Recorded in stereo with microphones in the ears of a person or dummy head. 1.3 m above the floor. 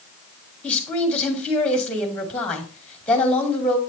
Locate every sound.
0.6 s a woman speaking: 5° left (ahead or behind), 2.5 m